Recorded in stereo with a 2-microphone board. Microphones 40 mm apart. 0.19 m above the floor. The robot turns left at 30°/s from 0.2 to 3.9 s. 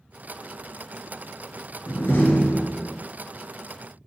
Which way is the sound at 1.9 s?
80° left.